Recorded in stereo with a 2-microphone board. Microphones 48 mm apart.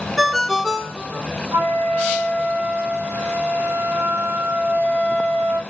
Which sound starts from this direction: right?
A flute, at 1.5 s.